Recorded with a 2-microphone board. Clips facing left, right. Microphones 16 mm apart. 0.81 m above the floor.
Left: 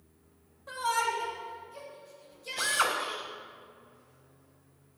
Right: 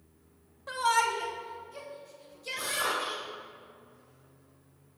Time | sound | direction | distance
0.7 | a shout | 20° right (ahead or behind) | 0.9 m
2.6 | a drill | 70° left (ahead or behind) | 2.5 m